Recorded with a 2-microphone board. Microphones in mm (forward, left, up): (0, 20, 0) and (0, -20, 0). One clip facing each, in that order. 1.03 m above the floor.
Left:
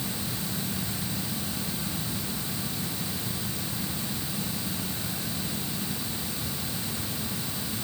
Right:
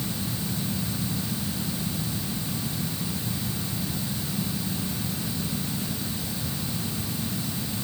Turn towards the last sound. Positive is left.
No sound to turn to.